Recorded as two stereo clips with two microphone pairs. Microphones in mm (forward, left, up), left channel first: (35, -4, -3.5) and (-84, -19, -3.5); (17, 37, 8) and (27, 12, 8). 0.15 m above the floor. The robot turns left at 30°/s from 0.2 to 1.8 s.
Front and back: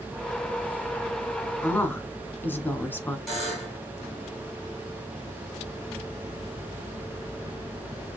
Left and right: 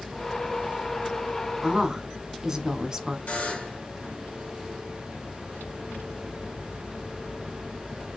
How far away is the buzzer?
About 2.5 m.